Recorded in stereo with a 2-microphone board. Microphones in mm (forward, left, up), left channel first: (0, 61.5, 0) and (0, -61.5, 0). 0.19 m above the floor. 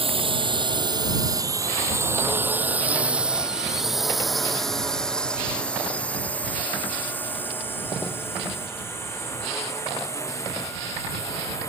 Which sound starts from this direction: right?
A drone, at 0.0 s.